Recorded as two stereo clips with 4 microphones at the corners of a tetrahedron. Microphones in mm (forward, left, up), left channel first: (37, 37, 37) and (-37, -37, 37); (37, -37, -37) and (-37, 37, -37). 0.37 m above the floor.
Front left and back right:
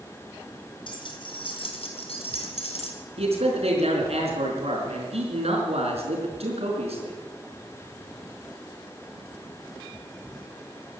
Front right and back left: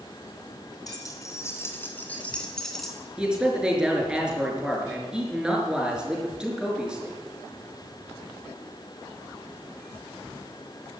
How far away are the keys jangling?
About 3 m.